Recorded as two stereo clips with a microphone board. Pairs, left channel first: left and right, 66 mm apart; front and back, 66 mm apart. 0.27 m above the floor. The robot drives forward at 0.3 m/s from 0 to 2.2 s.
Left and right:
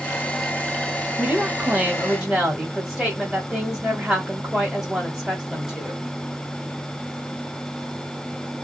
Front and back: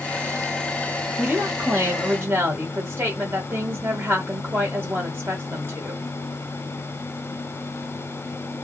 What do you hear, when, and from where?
1.2 s a woman speaking: 160° right, 1.3 m; by 6.0 s 165° right, 1.5 m